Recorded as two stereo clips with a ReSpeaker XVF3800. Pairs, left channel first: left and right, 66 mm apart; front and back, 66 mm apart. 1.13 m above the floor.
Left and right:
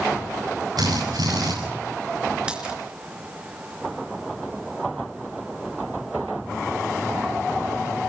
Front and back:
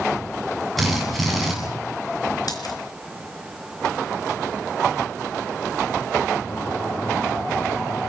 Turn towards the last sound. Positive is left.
turn(degrees=-15)